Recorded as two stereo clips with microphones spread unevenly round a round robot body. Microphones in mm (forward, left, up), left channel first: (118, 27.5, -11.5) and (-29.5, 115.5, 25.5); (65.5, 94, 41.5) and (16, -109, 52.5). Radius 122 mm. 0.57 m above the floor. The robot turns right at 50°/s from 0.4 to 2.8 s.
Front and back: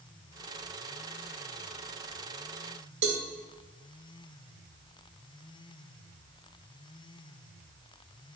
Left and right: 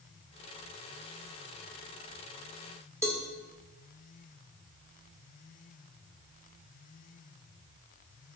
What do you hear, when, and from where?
3.0 s a cowbell: straight behind, 1.3 m